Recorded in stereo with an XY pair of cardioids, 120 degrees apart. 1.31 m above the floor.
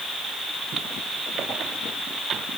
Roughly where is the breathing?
I don't hear breathing.